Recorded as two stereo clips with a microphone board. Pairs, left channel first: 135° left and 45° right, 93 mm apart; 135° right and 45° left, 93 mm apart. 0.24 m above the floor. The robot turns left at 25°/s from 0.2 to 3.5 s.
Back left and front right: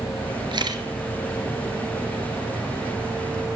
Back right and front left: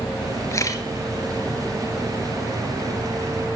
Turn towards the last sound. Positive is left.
turn(degrees=-155)